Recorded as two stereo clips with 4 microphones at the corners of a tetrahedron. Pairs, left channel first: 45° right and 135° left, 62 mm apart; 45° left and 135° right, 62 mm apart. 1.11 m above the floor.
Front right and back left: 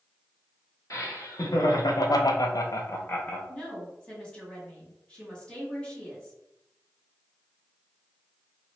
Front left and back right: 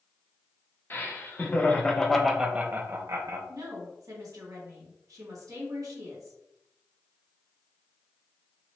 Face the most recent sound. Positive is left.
turn(degrees=-120)